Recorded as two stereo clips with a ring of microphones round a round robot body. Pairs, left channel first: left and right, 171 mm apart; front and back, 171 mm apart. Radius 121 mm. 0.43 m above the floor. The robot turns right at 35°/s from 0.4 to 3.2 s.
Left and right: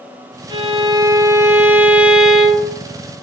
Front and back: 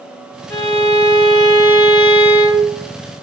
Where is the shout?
I don't hear a shout.